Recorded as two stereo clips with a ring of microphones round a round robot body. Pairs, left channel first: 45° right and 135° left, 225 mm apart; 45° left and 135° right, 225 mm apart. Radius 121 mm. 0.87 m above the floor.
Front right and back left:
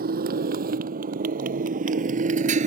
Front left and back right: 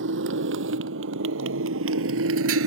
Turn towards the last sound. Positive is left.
turn(degrees=-165)